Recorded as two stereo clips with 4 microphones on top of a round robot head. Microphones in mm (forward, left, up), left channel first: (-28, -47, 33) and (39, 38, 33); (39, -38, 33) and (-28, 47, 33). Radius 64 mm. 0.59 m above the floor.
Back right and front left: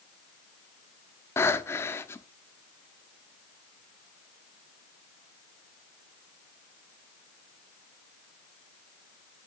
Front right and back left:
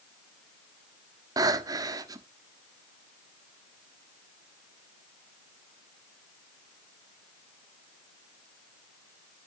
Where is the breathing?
170° left, 1.0 m.